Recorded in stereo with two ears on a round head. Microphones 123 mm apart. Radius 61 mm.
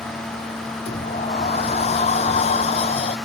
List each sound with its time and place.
0.8 s a sliding door: 45° left (ahead or behind)